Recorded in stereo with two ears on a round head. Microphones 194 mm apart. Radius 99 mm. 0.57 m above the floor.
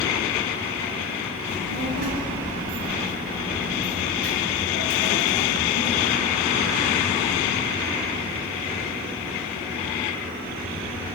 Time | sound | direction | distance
1.5 | a child speaking | 65° right (ahead or behind) | 2.5 m